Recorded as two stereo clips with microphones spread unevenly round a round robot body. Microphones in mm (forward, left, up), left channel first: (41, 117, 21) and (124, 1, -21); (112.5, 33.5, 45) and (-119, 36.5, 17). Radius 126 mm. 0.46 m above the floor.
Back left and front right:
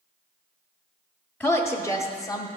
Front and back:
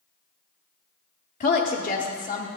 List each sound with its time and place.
1.4 s a woman speaking: 25° left, 1.0 m; by 2.5 s 50° left, 1.2 m